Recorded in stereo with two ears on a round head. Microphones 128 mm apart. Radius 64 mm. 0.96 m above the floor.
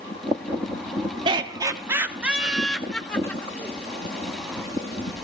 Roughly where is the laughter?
Right.